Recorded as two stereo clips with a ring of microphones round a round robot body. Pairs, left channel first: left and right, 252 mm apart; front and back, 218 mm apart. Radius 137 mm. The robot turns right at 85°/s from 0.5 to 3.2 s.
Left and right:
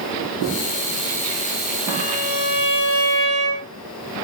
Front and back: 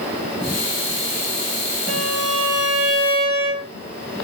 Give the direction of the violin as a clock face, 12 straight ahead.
7 o'clock.